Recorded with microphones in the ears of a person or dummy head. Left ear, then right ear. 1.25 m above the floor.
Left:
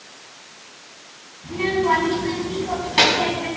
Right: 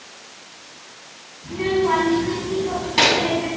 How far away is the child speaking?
About 6.5 m.